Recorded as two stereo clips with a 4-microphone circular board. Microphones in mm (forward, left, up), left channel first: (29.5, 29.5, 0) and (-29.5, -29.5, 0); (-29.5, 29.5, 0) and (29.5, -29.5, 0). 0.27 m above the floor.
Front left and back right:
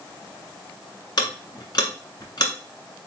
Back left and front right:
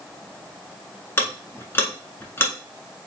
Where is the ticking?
75° left, 1.2 m.